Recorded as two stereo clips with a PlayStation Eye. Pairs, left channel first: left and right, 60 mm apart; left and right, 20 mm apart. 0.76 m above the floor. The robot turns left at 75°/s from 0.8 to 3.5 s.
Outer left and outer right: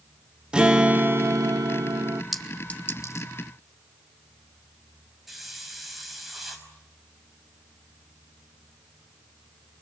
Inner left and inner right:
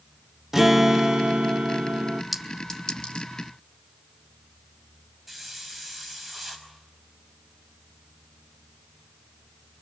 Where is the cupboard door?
I don't hear a cupboard door.